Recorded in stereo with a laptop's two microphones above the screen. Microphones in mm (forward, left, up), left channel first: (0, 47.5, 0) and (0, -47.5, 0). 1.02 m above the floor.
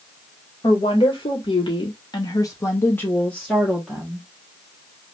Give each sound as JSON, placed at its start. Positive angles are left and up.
{"t": 0.6, "sound": "a woman speaking", "side_deg": 60, "distance_m": 1.3}